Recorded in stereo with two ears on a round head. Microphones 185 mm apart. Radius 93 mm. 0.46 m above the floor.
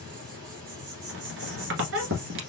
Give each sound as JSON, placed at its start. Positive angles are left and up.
{"t": 0.0, "sound": "an insect", "side_deg": -55, "distance_m": 2.5}
{"t": 1.1, "sound": "a squeak", "side_deg": -65, "distance_m": 1.3}